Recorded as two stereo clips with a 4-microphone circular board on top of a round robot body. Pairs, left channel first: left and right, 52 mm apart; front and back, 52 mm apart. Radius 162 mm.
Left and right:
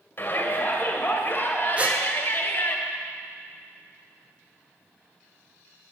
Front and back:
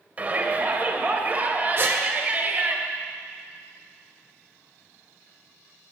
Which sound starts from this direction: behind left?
A shout, at 0.2 s.